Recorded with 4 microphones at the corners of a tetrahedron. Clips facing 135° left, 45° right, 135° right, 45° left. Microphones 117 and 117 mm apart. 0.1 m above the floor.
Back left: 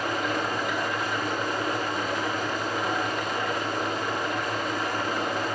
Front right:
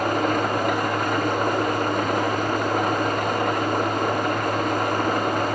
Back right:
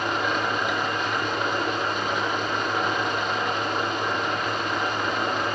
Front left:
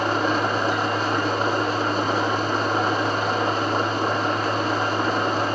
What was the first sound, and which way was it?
An engine running, 10° right.